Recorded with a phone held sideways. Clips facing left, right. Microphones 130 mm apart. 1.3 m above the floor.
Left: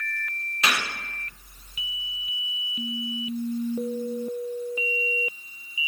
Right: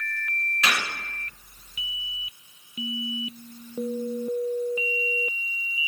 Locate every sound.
0.6 s a gunshot: 30° left (ahead or behind), 1.2 m